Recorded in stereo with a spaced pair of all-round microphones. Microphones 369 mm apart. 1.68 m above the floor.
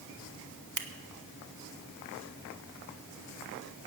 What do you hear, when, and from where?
0.8 s scissors: 55° right (ahead or behind), 1.1 m